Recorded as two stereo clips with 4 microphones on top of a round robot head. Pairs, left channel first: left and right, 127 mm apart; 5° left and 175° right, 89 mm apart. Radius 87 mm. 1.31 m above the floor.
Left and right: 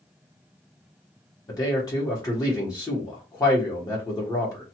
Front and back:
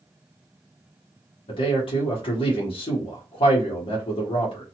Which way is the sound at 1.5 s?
30° left.